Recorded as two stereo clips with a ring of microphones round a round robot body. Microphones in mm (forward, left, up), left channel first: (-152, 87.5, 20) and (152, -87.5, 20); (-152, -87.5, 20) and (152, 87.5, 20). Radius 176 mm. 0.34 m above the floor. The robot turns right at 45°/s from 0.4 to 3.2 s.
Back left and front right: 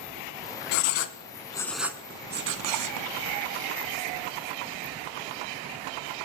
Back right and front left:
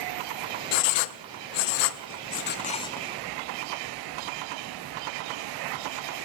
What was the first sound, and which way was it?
Writing, 170° right.